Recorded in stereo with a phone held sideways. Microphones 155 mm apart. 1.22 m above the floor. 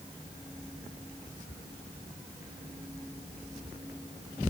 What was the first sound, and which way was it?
Only background noise.